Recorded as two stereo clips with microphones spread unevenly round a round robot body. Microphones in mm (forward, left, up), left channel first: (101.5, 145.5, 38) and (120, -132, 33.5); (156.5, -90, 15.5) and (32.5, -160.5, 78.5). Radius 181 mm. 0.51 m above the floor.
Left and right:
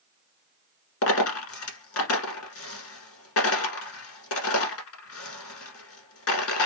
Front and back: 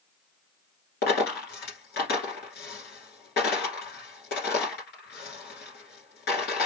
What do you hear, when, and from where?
1.0 s a dropped coin: 60° left, 1.3 m